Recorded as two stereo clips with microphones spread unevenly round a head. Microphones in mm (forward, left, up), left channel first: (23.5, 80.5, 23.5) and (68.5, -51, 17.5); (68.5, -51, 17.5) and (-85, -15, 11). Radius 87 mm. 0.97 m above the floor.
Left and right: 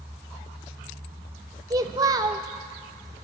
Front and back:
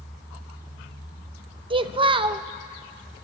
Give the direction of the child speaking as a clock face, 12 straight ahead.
5 o'clock.